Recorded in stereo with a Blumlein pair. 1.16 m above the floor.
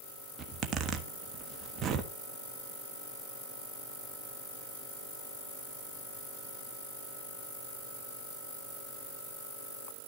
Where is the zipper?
30° right, 1.3 m.